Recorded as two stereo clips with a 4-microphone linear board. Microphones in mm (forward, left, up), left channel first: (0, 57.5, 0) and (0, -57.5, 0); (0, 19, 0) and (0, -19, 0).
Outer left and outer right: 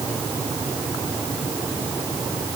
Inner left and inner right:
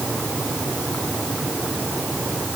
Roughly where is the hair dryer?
No hair dryer in this recording.